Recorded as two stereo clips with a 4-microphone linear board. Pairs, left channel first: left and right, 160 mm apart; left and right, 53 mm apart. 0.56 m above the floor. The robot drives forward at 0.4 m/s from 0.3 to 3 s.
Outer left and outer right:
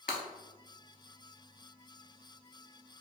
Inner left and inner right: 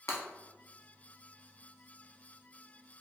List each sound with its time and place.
0.1 s breaking glass: 65° left (ahead or behind), 0.8 m